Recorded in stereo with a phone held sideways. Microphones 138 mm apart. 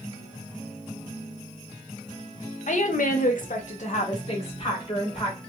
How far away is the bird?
No bird in this recording.